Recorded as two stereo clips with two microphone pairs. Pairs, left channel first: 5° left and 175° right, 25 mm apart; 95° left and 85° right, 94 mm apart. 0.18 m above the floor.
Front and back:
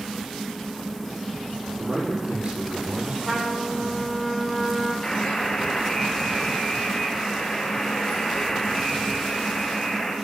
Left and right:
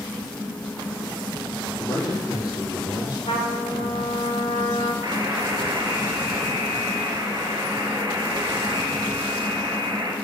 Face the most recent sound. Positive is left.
turn(degrees=-45)